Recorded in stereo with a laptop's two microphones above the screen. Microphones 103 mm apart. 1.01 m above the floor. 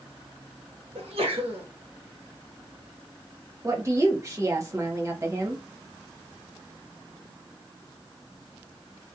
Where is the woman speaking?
30° right (ahead or behind), 1.2 m.